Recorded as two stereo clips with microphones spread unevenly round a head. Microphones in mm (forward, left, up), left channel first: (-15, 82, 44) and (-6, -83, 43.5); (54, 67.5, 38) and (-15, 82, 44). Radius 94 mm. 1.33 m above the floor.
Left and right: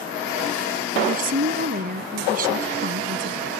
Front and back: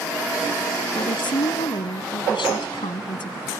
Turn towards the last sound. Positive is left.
turn(degrees=-45)